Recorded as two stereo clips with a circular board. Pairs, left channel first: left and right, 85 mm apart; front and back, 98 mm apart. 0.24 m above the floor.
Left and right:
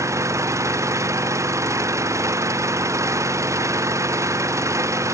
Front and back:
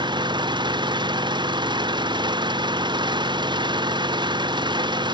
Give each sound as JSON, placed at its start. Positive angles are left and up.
{"t": 0.0, "sound": "an engine running", "azimuth_deg": -145}